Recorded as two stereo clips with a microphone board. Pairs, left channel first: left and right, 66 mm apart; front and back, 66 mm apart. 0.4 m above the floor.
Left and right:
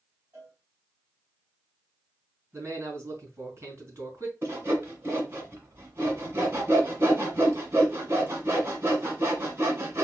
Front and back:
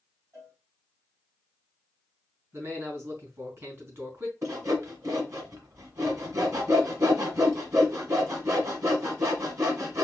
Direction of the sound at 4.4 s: 145° right.